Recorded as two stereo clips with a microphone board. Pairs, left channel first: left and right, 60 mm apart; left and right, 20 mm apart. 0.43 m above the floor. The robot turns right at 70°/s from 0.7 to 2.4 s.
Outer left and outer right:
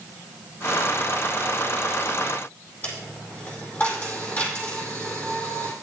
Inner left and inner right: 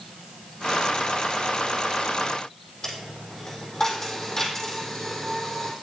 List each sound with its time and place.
2.8 s a dropped coin: 30° left (ahead or behind), 4 m